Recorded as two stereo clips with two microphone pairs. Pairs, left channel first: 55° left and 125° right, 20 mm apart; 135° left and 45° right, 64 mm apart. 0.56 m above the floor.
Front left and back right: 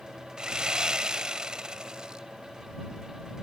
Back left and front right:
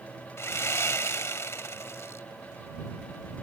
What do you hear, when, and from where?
0.4 s sawing: 175° left